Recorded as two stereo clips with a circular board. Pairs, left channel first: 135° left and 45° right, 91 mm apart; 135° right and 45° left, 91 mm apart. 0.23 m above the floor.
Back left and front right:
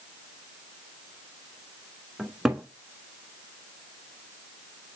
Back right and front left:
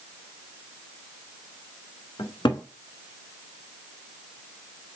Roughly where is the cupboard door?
Behind right.